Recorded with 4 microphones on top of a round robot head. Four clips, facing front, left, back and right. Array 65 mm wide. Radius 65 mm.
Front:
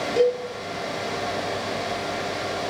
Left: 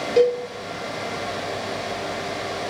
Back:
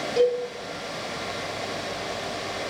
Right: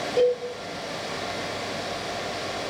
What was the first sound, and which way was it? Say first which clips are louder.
A cowbell: left 4 dB, front 1 dB; 70° left.